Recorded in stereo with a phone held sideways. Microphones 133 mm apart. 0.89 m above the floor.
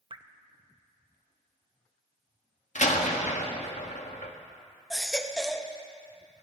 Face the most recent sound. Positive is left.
turn(degrees=5)  # may be behind; listen again after turning